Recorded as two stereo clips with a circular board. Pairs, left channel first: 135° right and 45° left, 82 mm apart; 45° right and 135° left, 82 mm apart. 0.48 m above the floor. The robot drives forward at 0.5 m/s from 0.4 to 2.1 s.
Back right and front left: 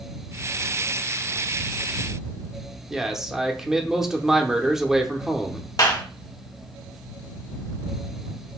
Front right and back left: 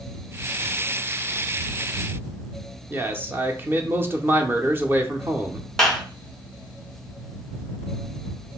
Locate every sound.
2.9 s a man speaking: 125° left, 0.8 m
5.8 s a clap: 130° right, 1.3 m